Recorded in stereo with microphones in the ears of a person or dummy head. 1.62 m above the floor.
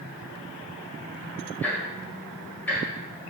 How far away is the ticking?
About 1.7 m.